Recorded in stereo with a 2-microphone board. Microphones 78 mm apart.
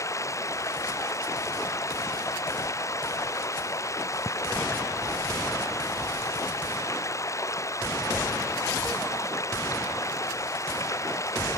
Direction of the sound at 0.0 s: 40° left (ahead or behind).